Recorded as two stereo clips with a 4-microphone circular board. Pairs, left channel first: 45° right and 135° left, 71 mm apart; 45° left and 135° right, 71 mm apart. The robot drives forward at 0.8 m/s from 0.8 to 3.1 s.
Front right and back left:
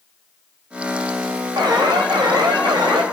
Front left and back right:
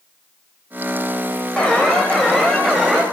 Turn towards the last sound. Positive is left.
turn(degrees=135)